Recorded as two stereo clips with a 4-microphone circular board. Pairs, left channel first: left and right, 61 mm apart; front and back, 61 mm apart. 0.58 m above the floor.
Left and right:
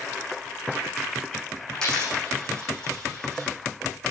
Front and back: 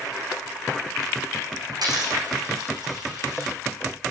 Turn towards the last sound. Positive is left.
turn(degrees=170)